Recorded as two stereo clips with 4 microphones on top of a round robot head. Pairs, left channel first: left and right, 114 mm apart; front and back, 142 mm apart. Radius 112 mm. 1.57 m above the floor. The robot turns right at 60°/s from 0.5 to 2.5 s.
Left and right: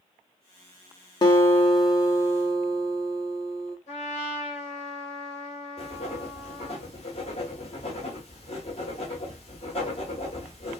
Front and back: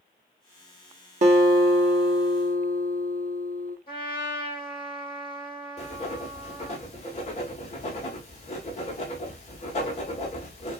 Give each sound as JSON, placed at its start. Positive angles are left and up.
{"t": 1.2, "sound": "a guitar", "azimuth_deg": 145, "distance_m": 1.2}
{"t": 3.9, "sound": "a trumpet", "azimuth_deg": 55, "distance_m": 3.0}
{"t": 5.8, "sound": "writing", "azimuth_deg": 45, "distance_m": 1.5}